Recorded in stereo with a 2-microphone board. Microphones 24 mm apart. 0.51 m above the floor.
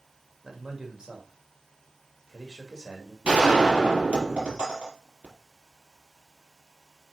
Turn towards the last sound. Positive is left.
turn(degrees=-70)  # may be behind; listen again after turning